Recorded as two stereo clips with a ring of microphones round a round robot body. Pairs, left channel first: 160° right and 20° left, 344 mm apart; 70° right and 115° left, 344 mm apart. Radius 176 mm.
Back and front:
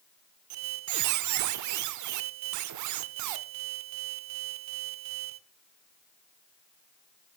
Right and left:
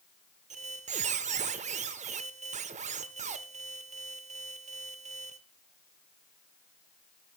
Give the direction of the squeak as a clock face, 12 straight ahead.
10 o'clock.